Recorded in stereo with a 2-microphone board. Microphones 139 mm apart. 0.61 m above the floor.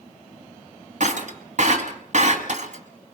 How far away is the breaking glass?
About 2 m.